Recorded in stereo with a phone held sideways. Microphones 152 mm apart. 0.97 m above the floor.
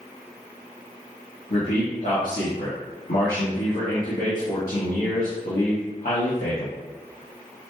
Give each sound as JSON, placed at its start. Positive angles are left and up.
{"t": 1.5, "sound": "a man speaking", "side_deg": 65, "distance_m": 1.2}